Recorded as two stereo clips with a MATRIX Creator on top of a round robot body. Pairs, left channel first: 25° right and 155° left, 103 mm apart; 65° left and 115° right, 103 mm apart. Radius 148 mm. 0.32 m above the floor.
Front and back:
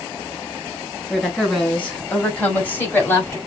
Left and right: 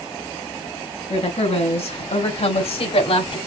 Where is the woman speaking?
60° left, 4 m; by 3.4 s 40° left, 3 m.